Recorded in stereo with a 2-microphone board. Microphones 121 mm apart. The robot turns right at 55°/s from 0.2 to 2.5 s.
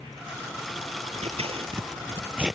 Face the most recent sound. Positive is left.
turn(degrees=-5)  # may be behind; listen again after turning